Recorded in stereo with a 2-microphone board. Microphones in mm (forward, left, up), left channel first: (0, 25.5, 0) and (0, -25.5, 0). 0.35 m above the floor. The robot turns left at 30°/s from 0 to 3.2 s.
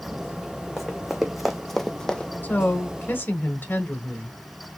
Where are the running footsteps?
5° right (ahead or behind), 1.0 m; by 2.3 s 20° left (ahead or behind), 0.6 m.